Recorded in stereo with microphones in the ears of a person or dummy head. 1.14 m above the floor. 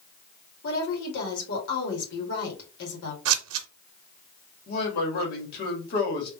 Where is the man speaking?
55° left (ahead or behind), 2.0 m.